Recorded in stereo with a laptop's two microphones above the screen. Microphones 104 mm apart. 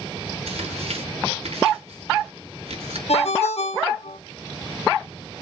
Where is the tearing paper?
85° right, 3.5 m.